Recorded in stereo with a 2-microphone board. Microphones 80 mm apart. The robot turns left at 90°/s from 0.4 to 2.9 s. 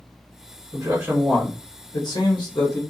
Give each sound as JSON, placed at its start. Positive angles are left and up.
{"t": 0.7, "sound": "a man speaking", "azimuth_deg": -135, "distance_m": 1.0}